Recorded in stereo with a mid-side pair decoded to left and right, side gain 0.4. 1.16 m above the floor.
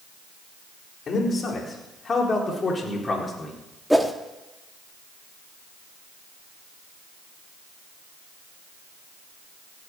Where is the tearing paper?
No tearing paper in this recording.